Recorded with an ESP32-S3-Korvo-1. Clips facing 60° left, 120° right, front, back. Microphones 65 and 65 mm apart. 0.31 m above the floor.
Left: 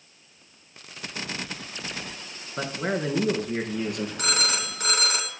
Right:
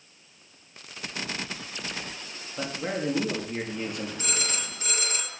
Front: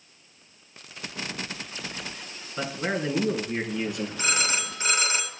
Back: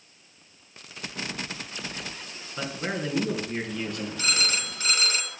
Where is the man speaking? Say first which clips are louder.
Left 3 dB, front 2 dB; 80° left, 3.5 m.